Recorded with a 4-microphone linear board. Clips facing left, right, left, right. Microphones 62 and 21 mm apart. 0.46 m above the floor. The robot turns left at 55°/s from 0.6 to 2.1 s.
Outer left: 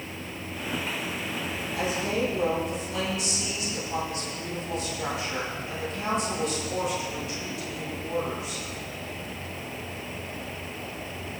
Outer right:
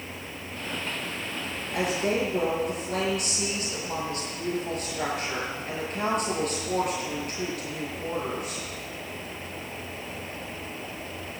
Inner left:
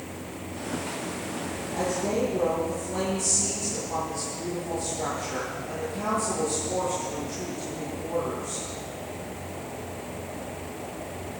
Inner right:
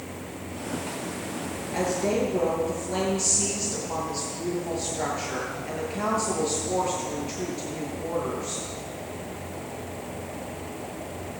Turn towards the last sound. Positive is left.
turn(degrees=-55)  # may be behind; listen again after turning